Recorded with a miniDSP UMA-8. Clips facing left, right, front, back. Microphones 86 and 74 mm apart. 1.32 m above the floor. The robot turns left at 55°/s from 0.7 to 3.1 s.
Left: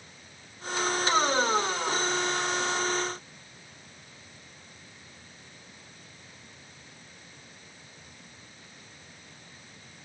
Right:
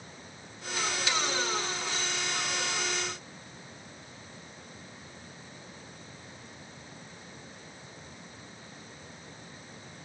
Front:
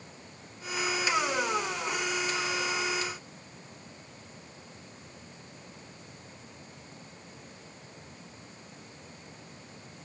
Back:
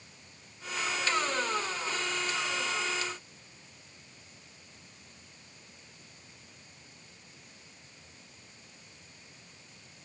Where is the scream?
No scream in this recording.